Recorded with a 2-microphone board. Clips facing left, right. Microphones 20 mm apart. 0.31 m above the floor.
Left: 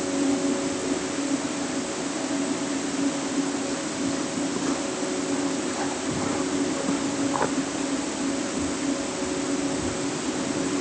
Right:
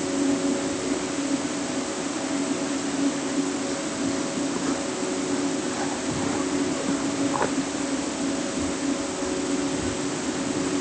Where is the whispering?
I don't hear whispering.